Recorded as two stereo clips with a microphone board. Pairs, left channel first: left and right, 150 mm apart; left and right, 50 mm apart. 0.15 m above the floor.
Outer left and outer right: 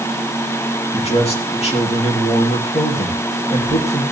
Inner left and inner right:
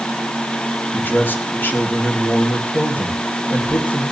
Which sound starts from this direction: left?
A man speaking, at 0.9 s.